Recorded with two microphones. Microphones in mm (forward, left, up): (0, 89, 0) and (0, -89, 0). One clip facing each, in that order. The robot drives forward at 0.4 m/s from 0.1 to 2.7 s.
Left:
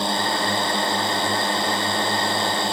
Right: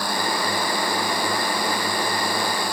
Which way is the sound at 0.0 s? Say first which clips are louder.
Left 1 dB; 20° left (ahead or behind).